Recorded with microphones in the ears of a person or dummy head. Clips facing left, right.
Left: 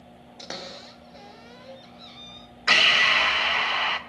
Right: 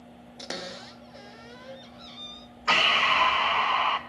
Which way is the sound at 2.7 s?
25° left (ahead or behind).